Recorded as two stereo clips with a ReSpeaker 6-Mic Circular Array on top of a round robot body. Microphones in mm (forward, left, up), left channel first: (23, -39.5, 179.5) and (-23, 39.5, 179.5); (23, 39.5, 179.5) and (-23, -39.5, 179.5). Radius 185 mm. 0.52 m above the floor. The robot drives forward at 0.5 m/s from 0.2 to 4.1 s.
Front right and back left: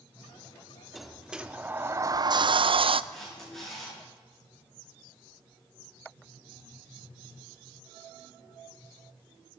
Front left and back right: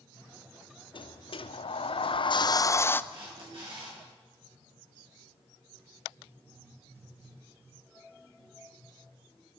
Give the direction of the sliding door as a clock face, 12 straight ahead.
11 o'clock.